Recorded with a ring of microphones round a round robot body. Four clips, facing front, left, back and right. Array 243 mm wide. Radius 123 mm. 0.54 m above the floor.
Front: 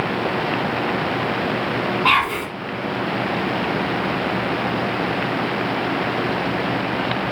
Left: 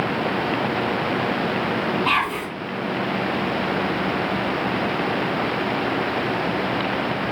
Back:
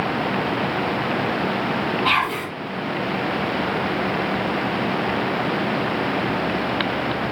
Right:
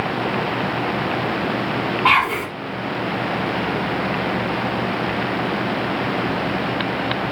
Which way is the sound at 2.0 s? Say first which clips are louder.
Right 5 dB, front 2 dB; 75° right.